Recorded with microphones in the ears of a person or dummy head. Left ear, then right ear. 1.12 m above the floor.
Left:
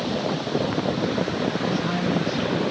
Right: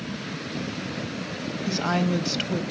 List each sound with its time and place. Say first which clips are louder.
1.7 s a woman speaking: left 1 dB; 65° right (ahead or behind), 1.7 m